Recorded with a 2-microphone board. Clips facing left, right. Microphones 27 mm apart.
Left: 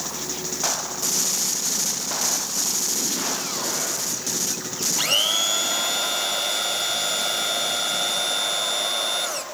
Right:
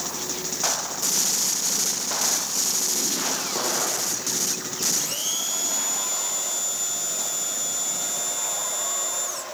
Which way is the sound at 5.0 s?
70° left (ahead or behind).